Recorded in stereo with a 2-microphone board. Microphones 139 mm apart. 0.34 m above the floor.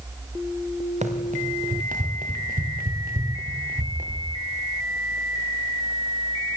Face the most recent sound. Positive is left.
turn(degrees=-70)  # may be behind; listen again after turning